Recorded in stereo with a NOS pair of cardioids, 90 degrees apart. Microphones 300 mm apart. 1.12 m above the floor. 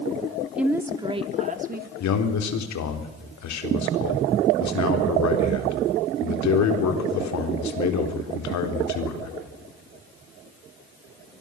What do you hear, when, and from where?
0.6 s a woman speaking: 5° right, 2.5 m; by 1.9 s 35° right, 3 m
2.0 s a man speaking: 65° left, 4 m